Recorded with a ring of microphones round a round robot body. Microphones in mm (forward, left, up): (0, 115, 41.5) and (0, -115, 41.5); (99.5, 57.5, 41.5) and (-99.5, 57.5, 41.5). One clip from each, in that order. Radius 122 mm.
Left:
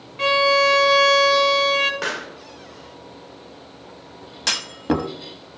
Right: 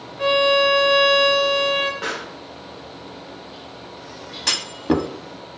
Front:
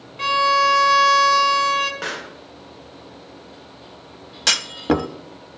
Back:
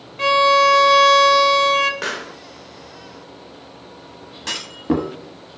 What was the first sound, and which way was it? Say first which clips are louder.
A violin: even, back 3 dB; 95° left.